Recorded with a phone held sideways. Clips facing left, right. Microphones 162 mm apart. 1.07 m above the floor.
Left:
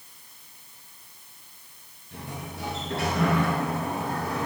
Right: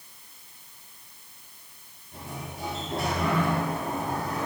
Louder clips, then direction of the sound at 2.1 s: Left 1 dB; 65° left (ahead or behind).